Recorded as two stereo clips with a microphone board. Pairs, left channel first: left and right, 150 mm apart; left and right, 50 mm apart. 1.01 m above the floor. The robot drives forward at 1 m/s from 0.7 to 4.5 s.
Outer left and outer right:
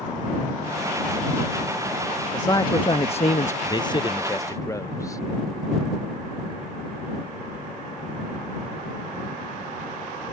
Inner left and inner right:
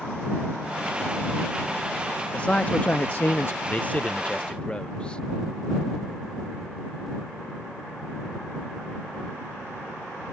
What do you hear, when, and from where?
2.3 s a man speaking: 25° left (ahead or behind); by 3.5 s 55° left (ahead or behind)
3.6 s a man speaking: 25° left (ahead or behind); by 5.2 s 20° left (ahead or behind)